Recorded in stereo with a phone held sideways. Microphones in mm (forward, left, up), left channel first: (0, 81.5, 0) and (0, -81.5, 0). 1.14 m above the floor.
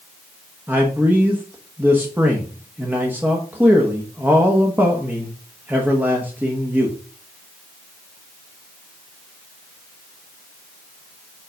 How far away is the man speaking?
About 1.4 m.